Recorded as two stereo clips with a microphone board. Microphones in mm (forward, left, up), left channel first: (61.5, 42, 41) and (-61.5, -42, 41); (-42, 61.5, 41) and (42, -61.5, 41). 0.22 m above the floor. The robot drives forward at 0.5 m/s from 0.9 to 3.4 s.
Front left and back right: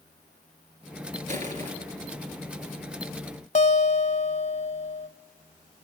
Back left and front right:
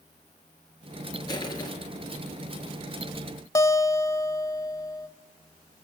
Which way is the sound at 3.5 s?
60° left.